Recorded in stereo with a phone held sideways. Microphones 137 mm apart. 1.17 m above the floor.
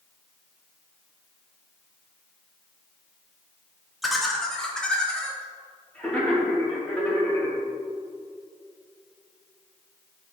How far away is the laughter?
About 1.0 m.